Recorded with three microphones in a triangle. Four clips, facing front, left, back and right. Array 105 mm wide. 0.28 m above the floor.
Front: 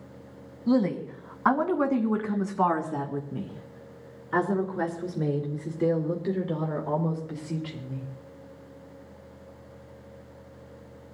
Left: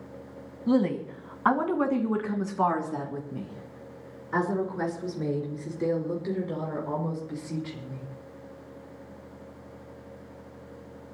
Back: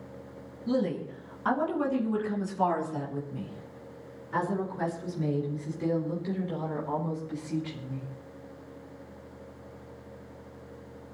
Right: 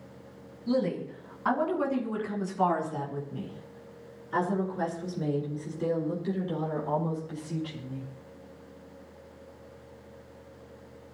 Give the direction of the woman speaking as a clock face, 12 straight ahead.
10 o'clock.